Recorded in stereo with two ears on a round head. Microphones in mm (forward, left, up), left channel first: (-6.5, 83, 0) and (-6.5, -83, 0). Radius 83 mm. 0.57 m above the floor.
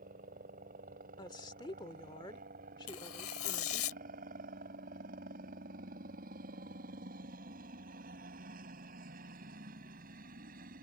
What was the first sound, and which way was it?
A helicopter, 45° right (ahead or behind).